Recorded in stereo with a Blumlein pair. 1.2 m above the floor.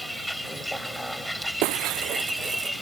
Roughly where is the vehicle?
Ahead.